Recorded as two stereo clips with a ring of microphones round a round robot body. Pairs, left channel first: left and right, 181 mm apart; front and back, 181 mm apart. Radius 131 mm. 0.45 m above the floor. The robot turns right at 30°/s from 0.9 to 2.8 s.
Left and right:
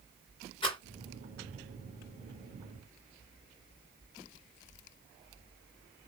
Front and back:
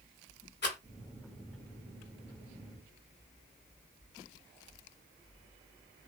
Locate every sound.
0.6 s a rattle: 25° left, 1.9 m